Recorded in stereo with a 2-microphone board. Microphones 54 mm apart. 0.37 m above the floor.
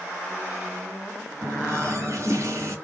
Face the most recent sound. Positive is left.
turn(degrees=-55)  # may be behind; listen again after turning